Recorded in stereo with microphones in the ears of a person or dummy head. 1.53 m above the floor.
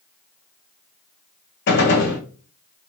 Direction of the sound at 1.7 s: 55° left (ahead or behind).